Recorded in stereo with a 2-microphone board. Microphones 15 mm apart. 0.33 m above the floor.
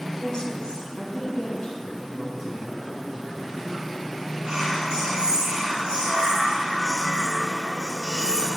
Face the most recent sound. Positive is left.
turn(degrees=-70)  # may be behind; listen again after turning